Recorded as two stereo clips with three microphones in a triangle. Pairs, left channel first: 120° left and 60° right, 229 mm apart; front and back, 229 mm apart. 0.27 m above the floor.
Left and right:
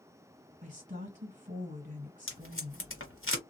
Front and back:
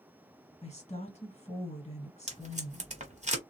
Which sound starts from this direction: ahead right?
A woman speaking, at 0.6 s.